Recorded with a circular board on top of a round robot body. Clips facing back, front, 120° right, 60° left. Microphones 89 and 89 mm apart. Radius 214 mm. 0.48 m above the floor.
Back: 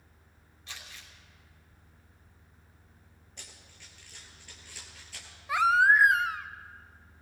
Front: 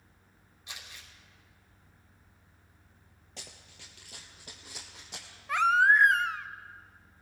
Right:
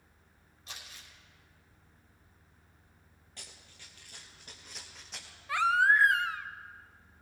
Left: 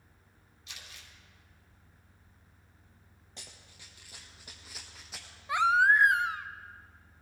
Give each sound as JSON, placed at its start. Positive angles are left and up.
{"t": 0.7, "sound": "crumpling", "azimuth_deg": -75, "distance_m": 5.0}
{"t": 3.4, "sound": "running footsteps", "azimuth_deg": -10, "distance_m": 0.8}
{"t": 5.5, "sound": "a baby crying", "azimuth_deg": 105, "distance_m": 0.8}